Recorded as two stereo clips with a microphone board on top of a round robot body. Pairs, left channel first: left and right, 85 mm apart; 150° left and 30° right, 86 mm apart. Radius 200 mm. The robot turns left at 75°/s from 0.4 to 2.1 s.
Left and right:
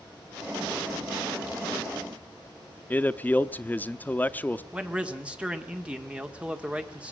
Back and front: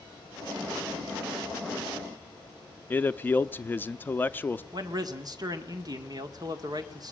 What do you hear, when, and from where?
2.9 s a man speaking: 125° left, 0.9 m
4.7 s a man speaking: 15° right, 2.0 m